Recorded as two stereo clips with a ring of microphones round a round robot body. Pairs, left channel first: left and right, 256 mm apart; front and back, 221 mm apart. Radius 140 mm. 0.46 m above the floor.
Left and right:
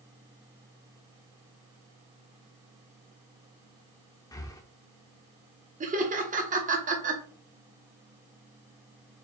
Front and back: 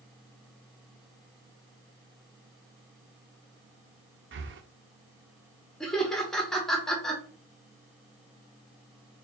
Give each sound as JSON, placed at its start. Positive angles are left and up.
{"t": 4.3, "sound": "breathing", "azimuth_deg": 165, "distance_m": 0.6}
{"t": 5.8, "sound": "laughter", "azimuth_deg": -85, "distance_m": 1.1}